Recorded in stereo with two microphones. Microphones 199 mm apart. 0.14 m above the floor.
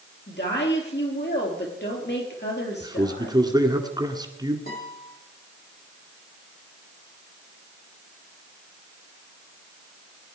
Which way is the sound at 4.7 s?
55° left (ahead or behind).